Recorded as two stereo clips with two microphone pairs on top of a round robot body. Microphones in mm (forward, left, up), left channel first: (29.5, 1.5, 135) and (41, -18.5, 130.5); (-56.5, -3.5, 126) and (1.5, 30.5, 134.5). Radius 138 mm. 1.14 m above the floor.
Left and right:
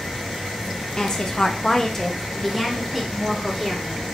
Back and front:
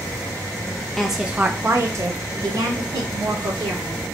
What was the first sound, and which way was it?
A woman speaking, 150° left.